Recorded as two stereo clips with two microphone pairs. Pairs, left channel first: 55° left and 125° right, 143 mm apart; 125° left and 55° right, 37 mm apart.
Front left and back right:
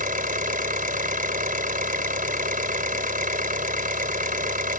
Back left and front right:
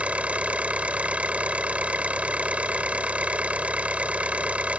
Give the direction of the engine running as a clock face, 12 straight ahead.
4 o'clock.